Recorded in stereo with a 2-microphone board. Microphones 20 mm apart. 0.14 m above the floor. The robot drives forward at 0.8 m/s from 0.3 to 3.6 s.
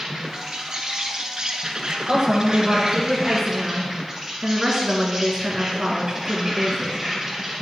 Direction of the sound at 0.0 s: 25° right (ahead or behind).